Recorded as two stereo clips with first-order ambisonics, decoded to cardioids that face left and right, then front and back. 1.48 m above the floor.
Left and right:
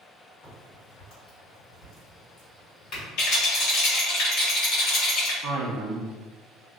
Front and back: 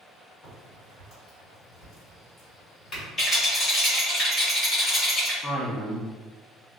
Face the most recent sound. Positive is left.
turn(degrees=-75)